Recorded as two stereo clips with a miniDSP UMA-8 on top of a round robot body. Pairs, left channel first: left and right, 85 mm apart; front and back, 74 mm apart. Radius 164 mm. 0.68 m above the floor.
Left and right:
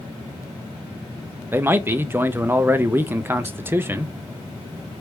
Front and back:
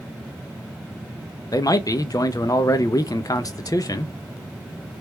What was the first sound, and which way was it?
A man speaking, 30° right.